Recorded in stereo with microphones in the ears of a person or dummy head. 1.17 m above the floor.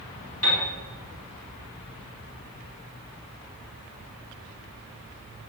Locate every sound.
0.4 s a piano: 75° left (ahead or behind), 1.6 m